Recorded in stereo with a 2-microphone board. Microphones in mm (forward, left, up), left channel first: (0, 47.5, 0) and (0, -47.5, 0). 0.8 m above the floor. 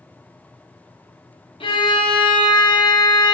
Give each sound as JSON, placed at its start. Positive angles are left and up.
{"t": 1.6, "sound": "a violin", "side_deg": 65, "distance_m": 0.6}